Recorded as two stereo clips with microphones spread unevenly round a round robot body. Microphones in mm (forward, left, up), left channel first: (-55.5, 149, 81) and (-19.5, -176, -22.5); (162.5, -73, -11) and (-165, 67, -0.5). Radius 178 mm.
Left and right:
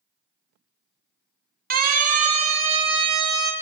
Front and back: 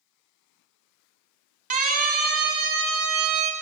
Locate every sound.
1.7 s a siren: 135° right, 3.5 m; by 3.5 s 155° right, 4 m